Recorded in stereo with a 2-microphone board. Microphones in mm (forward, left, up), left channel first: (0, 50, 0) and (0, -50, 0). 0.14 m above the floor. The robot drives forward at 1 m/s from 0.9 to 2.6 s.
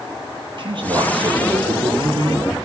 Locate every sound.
0.6 s a man speaking: 50° right (ahead or behind), 3.5 m; by 2.5 s 65° right (ahead or behind), 3 m